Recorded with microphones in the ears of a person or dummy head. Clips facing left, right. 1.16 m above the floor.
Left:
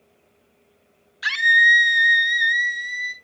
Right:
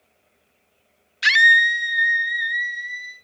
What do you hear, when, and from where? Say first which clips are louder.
1.2 s a scream: right 1 dB; 25° right (ahead or behind), 0.7 m; by 3.1 s 70° left (ahead or behind), 1.7 m